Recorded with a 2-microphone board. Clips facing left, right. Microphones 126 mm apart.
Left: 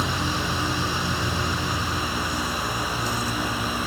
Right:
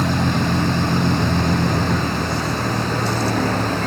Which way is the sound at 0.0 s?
60° right (ahead or behind).